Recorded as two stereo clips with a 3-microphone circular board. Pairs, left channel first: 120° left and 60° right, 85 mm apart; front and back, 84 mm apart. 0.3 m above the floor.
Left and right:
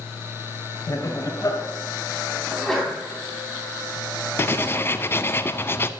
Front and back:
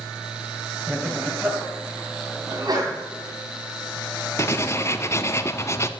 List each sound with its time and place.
0.9 s laughter: 120° left, 1.7 m
2.5 s a sneeze: 155° right, 2.5 m
4.4 s writing: 55° left, 0.6 m